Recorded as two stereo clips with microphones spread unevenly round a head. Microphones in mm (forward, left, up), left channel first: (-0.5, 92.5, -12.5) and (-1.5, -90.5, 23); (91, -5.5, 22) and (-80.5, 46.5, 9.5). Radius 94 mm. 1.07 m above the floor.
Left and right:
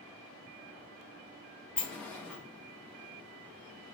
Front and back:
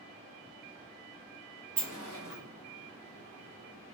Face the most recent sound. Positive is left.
turn(degrees=175)